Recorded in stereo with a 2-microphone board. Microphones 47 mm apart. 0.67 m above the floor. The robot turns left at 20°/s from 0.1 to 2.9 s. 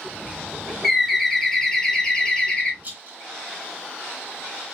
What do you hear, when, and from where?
0.8 s a bird: straight behind, 0.9 m; by 2.7 s 140° left, 0.9 m
2.8 s a rattle: 35° right (ahead or behind), 1.4 m